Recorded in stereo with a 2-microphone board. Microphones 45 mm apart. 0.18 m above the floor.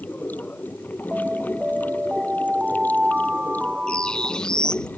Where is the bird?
15° left (ahead or behind).